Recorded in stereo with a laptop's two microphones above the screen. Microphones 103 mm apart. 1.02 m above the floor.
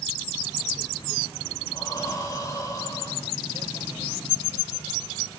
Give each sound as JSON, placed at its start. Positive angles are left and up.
{"t": 1.7, "sound": "breathing", "side_deg": 30, "distance_m": 1.8}